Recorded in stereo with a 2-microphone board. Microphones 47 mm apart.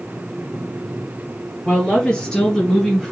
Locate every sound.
1.6 s a woman speaking: 25° left (ahead or behind), 3 m; by 3.1 s 10° left (ahead or behind), 1.5 m